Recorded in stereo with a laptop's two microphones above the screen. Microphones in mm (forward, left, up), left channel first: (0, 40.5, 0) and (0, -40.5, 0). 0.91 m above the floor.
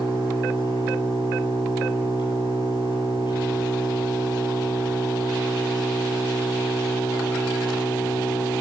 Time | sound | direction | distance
0.0 | an engine running | 70° left (ahead or behind) | 8 m